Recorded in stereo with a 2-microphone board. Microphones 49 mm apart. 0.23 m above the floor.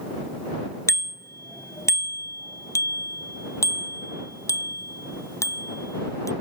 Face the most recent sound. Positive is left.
turn(degrees=75)  # may be behind; listen again after turning